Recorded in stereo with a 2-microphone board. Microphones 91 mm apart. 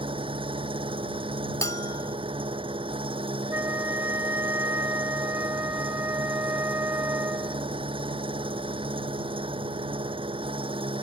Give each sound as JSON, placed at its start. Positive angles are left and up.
{"t": 0.0, "sound": "an engine running", "side_deg": -75}
{"t": 1.6, "sound": "a bell", "side_deg": 40}
{"t": 3.5, "sound": "a flute", "side_deg": -30}